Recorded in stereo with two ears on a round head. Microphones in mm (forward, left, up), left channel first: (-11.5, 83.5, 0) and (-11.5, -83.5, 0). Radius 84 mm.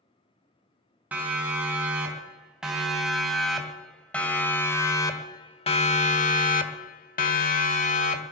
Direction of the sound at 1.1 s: 10° right (ahead or behind).